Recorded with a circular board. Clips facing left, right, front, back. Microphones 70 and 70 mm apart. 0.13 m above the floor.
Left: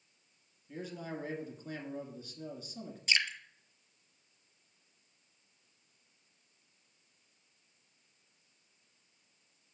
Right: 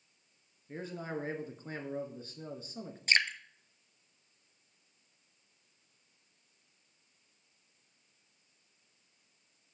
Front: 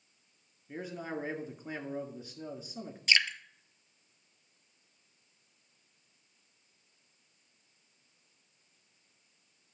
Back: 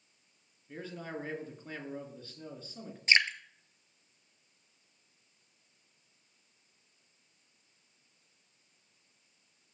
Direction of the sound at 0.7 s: 70° right.